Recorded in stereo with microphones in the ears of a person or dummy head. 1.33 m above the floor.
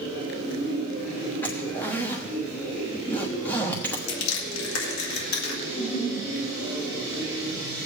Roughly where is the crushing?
Left.